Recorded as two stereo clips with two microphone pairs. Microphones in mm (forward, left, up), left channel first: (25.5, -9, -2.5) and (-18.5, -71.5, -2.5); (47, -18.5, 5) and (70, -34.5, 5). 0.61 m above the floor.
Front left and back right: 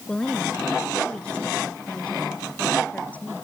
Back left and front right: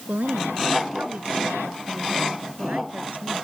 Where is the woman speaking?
25° right; by 3.4 s 15° right.